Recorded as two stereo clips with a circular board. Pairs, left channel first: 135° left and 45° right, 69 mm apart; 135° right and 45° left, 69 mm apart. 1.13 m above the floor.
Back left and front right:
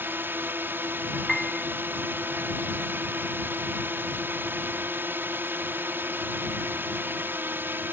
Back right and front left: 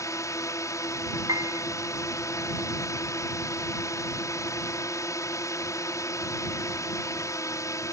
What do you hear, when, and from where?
0.0 s a drone: 105° right
1.3 s a piano: 50° left